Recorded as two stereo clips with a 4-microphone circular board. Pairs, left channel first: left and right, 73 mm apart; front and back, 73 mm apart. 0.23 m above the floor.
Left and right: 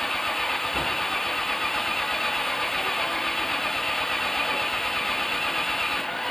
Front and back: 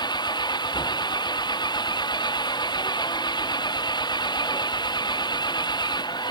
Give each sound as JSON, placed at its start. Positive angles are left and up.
{"t": 0.0, "sound": "an engine running", "azimuth_deg": 5}